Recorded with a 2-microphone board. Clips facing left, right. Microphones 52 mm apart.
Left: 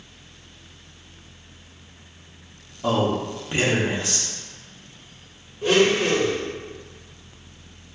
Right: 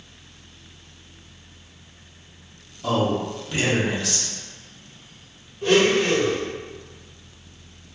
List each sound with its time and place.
2.8 s a man speaking: 25° left (ahead or behind), 0.7 m
5.6 s a blender: 5° left (ahead or behind), 1.2 m